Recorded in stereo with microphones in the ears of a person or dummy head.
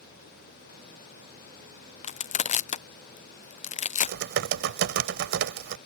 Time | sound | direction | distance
2.0 | crushing | 30° left (ahead or behind) | ?
4.0 | typing on a keyboard | 65° right (ahead or behind) | ?